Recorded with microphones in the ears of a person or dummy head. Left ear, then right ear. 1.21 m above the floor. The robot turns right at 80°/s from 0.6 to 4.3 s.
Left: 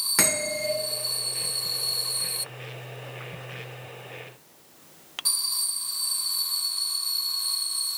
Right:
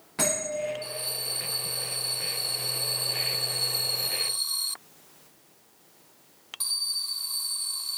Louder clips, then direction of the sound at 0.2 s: Right 1 dB; 75° left (ahead or behind).